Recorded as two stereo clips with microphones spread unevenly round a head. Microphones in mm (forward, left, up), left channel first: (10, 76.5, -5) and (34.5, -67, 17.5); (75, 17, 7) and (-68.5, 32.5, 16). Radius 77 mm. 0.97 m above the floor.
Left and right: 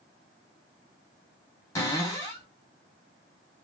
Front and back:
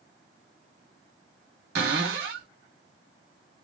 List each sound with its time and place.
1.8 s a cupboard door: 175° left, 1.9 m